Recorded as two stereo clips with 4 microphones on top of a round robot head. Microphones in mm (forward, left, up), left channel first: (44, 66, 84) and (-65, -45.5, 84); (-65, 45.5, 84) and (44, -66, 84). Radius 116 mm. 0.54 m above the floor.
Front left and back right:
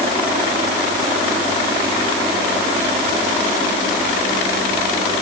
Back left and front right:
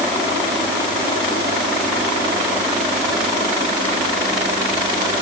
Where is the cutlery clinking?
No cutlery clinking in this recording.